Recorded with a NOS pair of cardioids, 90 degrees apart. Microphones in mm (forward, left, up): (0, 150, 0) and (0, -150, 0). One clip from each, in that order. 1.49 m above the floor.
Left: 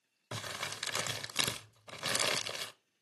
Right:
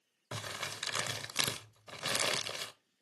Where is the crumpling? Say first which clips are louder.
Even; 5° left, 0.5 m.